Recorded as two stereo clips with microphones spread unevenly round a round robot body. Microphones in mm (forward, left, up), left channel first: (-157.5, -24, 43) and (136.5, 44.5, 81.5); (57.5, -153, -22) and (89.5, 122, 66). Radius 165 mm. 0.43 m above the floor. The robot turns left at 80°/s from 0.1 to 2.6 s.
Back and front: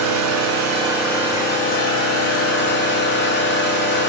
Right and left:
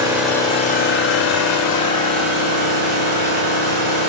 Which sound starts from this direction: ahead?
An engine running, at 0.0 s.